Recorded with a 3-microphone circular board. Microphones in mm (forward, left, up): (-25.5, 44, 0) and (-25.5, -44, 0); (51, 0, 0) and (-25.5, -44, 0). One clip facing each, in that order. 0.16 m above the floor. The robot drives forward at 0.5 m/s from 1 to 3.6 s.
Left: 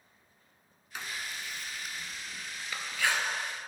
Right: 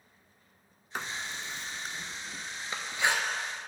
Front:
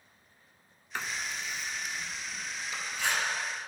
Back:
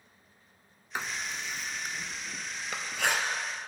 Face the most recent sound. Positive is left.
turn(degrees=-160)